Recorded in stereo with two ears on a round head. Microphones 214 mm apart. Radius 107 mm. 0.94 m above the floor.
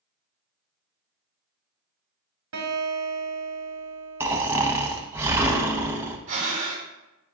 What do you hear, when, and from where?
2.5 s a guitar: 60° right (ahead or behind), 2 m
4.2 s snoring: 10° right (ahead or behind), 0.9 m
6.3 s breathing: 30° right (ahead or behind), 2.5 m